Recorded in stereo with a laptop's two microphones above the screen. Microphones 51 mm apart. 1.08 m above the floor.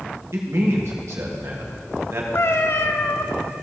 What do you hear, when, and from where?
0.3 s a man speaking: 65° right (ahead or behind), 1.6 m
2.4 s a cat meowing: 55° left (ahead or behind), 0.5 m